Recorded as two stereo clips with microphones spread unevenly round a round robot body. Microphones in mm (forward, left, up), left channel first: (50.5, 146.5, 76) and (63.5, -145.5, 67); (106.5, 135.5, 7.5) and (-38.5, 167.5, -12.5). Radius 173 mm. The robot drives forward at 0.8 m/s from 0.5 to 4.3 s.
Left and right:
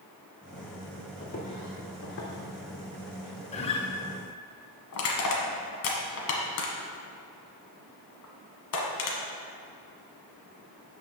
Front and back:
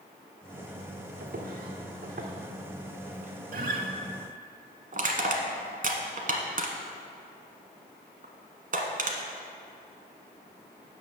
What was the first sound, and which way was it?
Footsteps, 160° left.